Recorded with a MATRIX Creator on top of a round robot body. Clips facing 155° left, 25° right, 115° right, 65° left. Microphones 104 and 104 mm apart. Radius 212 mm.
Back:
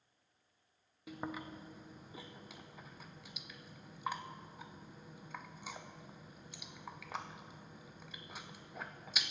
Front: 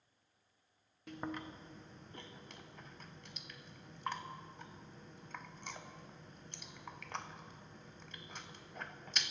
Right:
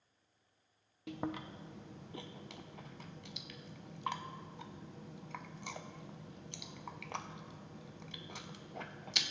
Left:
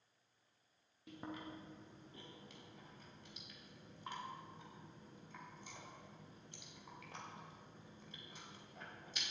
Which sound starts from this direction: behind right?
Chewing, at 1.1 s.